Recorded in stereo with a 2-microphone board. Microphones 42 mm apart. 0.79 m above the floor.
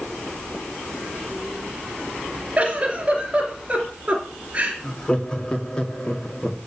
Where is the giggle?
30° right (ahead or behind), 3 m.